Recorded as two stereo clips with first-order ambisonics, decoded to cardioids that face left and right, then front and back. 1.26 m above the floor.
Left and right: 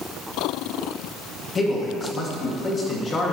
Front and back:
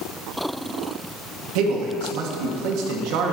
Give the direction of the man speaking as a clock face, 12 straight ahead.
7 o'clock.